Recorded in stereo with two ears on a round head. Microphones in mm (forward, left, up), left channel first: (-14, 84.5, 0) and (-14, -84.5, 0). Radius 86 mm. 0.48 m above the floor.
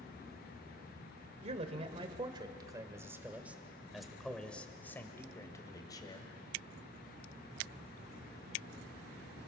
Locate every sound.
1.4 s a man speaking: 40° right (ahead or behind), 2 m; by 6.3 s 25° left (ahead or behind), 3 m